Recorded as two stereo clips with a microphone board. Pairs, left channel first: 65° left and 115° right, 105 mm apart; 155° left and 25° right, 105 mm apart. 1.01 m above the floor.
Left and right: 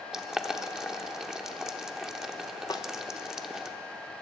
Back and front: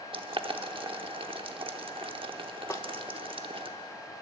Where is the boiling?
30° right, 0.8 m.